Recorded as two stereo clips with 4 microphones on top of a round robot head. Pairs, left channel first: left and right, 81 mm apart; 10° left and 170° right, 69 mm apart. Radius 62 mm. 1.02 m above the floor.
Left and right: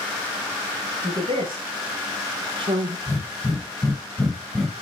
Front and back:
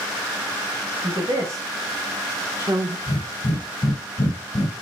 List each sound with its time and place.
1.0 s a woman speaking: 120° right, 1.7 m; by 3.0 s 110° right, 0.6 m
3.1 s breathing: 5° left, 0.8 m